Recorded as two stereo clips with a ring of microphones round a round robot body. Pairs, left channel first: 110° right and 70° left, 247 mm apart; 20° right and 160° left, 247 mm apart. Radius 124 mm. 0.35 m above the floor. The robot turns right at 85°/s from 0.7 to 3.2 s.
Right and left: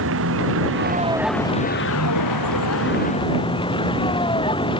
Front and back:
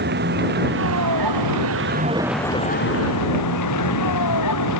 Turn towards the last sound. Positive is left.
turn(degrees=-40)